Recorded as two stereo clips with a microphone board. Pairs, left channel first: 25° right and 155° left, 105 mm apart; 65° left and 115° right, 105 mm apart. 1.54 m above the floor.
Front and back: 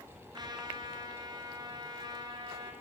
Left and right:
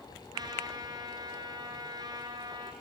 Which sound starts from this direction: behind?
A trumpet, at 0.3 s.